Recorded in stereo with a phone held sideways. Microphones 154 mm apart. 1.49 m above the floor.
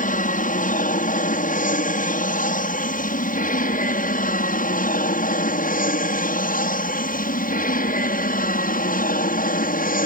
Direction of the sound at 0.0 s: 60° left (ahead or behind).